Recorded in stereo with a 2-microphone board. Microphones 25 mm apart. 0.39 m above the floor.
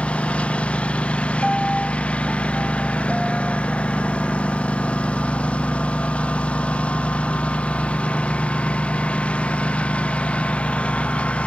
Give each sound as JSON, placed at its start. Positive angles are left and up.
{"t": 0.0, "sound": "a lawn mower", "side_deg": 50}
{"t": 1.4, "sound": "a piano", "side_deg": 0}